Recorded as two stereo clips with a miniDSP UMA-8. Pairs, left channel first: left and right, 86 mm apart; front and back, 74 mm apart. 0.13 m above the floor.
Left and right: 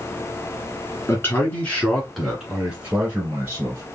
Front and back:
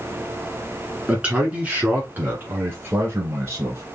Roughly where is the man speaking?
Behind left.